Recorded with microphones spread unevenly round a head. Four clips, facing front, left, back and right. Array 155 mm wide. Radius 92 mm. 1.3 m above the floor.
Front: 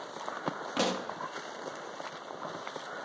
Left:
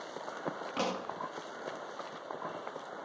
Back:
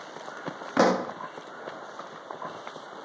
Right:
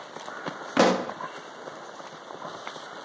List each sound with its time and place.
0.8 s a pop: 125° right